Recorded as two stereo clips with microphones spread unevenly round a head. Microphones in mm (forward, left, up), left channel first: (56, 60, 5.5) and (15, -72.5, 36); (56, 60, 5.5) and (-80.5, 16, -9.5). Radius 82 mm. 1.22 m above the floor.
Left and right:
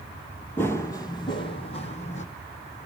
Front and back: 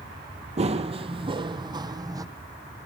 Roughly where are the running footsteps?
Behind.